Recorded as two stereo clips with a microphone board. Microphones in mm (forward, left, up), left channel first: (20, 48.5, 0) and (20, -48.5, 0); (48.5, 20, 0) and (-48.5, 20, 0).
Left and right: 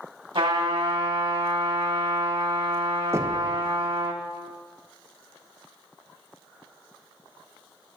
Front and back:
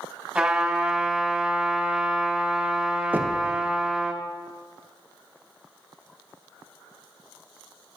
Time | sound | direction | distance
0.3 | a trumpet | 105° right | 1.9 m
3.1 | knocking | 125° right | 0.7 m